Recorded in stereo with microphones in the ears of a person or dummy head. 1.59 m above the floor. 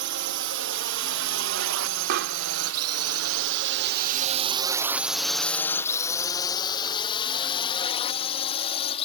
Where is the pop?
60° right (ahead or behind).